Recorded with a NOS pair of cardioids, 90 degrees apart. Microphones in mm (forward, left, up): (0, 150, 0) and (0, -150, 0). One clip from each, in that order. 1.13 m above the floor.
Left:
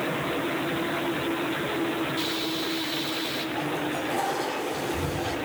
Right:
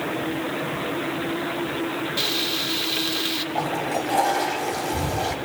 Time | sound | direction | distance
2.2 | frying | 60° right | 2.5 m
3.5 | a toilet flushing | 60° right | 4.5 m